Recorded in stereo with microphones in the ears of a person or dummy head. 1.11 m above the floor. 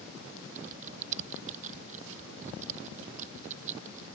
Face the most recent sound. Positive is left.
turn(degrees=-40)  # may be behind; listen again after turning